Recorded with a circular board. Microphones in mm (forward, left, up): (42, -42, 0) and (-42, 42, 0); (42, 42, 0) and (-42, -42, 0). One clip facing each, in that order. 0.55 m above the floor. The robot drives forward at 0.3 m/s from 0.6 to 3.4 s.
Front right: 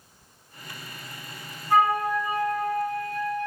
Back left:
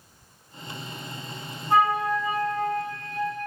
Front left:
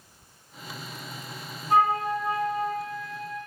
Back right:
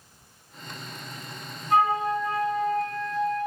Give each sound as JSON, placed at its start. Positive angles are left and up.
{"t": 1.7, "sound": "a flute", "azimuth_deg": 80, "distance_m": 1.1}